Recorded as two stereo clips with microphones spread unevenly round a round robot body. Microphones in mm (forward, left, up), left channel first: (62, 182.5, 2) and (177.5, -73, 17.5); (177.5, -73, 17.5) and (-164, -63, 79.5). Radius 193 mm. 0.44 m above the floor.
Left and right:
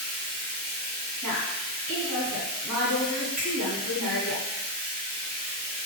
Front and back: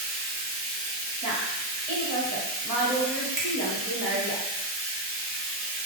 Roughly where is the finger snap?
Behind.